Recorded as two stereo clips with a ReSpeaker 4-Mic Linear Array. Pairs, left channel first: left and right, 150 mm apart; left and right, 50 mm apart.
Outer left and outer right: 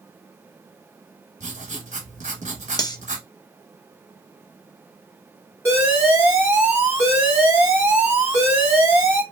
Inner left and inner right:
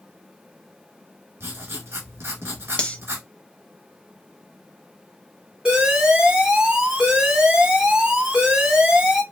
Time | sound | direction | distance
1.4 | writing | 55° right (ahead or behind) | 0.9 m
2.8 | cutlery clinking | 25° left (ahead or behind) | 0.6 m
5.7 | an alarm | 15° right (ahead or behind) | 1.2 m